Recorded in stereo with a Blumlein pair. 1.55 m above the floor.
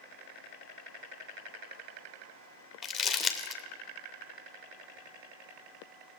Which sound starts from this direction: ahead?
Crumpling, at 2.8 s.